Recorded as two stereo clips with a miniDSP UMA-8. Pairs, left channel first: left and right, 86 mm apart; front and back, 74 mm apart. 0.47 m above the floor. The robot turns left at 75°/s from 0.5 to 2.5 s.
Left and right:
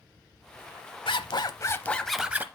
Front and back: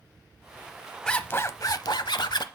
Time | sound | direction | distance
1.1 | a zipper | 80° left | 0.7 m